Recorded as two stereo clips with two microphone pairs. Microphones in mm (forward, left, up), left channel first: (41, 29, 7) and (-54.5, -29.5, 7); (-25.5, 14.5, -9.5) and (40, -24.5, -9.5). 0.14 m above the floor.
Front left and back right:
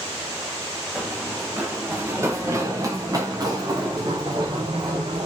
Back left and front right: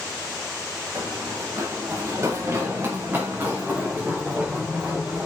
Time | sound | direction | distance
0.9 | running footsteps | 70° right | 3.5 m